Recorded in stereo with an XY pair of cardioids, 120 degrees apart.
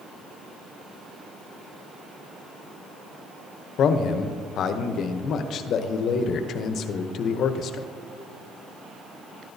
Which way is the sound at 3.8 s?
60° left.